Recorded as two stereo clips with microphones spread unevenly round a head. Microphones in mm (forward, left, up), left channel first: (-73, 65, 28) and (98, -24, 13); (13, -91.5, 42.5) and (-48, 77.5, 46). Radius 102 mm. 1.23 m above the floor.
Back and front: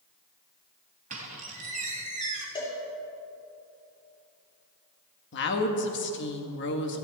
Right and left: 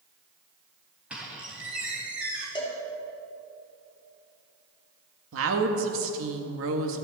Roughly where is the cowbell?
Behind right.